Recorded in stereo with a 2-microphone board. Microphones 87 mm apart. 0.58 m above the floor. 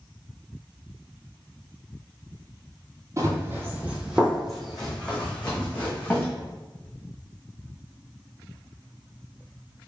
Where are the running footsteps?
35° right (ahead or behind), 0.9 m; by 6.3 s 20° left (ahead or behind), 2.0 m.